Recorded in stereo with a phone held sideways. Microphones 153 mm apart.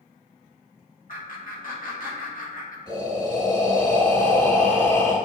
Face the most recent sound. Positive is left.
turn(degrees=25)  # may be behind; listen again after turning